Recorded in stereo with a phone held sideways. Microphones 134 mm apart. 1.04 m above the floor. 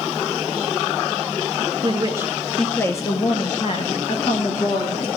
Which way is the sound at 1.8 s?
35° right (ahead or behind).